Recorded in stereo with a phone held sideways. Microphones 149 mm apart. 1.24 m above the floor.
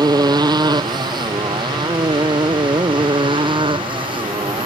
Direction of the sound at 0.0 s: 25° right (ahead or behind).